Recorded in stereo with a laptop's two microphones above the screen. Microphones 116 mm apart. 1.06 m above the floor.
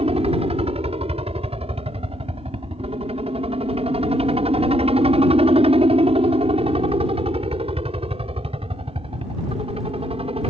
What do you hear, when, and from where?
0.0 s a helicopter: 60° right (ahead or behind); by 10.5 s 55° right (ahead or behind)